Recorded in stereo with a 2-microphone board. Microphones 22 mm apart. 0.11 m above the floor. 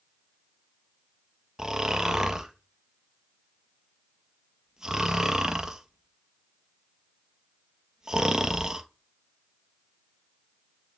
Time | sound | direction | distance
1.6 | snoring | 30° right (ahead or behind) | 0.8 m